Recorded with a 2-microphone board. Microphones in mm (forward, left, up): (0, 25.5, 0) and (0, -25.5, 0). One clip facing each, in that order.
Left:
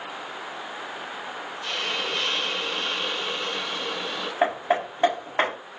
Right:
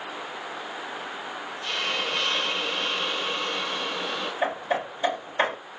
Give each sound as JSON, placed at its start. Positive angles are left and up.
{"t": 1.6, "sound": "a hiss", "side_deg": -5, "distance_m": 0.9}
{"t": 4.4, "sound": "hammering", "side_deg": 75, "distance_m": 1.8}